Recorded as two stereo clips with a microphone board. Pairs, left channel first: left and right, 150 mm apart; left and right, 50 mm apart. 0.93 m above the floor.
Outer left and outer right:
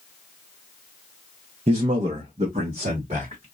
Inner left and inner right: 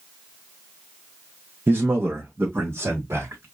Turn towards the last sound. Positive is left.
turn(degrees=-60)  # may be behind; listen again after turning